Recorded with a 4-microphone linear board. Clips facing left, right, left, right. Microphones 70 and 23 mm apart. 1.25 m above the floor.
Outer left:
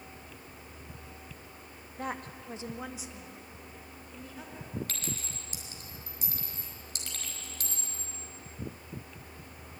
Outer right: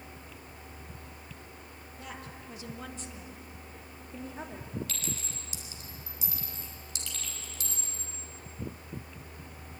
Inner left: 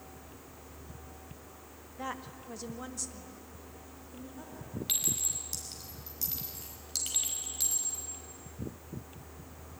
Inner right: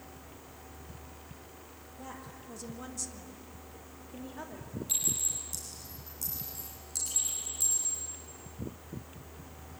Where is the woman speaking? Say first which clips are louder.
Outer left 7 dB, inner left 6 dB; 55° left (ahead or behind), 1.7 m; by 4.8 s 40° right (ahead or behind), 3 m.